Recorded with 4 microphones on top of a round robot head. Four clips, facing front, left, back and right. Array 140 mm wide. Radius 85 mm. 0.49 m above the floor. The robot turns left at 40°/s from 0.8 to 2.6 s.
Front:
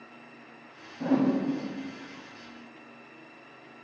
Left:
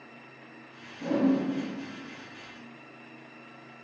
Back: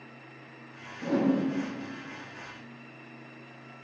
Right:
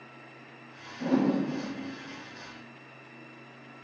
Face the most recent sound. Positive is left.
turn(degrees=-75)